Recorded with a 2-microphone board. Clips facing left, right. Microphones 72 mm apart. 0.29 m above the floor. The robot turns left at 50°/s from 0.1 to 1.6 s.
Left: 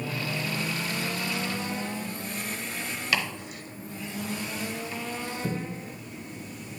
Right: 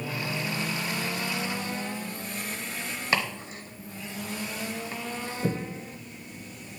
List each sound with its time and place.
3.1 s chopping: 30° right (ahead or behind), 0.8 m